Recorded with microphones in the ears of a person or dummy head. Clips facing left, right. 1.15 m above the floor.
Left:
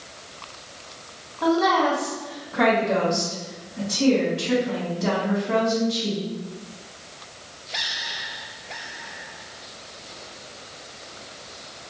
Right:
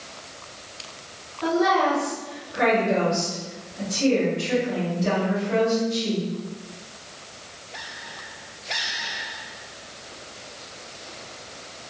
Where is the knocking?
I don't hear knocking.